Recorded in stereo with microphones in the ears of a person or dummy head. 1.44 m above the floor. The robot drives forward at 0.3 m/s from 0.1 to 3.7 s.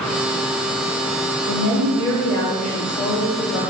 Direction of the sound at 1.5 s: 80° left.